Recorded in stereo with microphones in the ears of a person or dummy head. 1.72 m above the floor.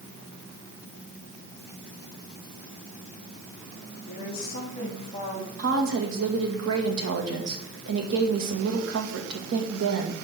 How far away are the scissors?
I don't hear scissors.